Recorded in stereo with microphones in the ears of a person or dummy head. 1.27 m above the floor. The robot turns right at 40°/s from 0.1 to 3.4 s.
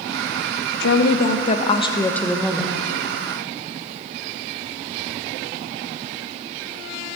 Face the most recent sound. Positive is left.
turn(degrees=-140)